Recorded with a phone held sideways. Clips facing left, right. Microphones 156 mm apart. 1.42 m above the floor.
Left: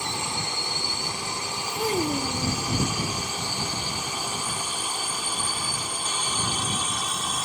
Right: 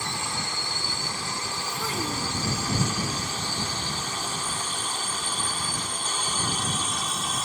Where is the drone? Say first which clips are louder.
Left 1 dB; 20° left (ahead or behind); by 7.5 s 5° left (ahead or behind).